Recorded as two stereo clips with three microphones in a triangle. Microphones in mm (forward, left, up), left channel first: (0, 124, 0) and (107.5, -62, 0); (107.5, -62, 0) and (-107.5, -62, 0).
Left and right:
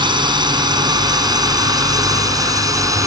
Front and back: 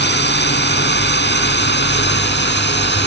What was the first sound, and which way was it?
A drone, 5° left.